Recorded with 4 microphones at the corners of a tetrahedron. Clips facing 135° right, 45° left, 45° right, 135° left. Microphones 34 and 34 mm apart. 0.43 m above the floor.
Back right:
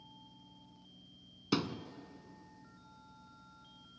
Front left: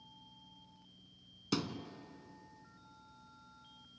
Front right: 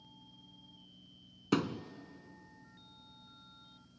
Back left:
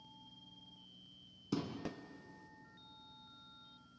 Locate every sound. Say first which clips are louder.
1.5 s a thud: back right 3 dB, front right 8 dB; 60° right, 0.9 m